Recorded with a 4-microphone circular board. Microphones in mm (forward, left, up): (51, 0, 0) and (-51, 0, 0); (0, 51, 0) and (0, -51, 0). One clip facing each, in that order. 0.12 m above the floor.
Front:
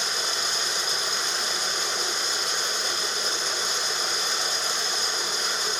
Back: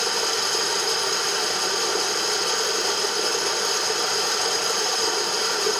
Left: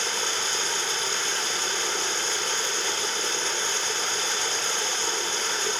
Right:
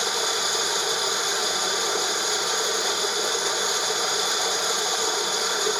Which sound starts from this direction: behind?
Running water, at 0.0 s.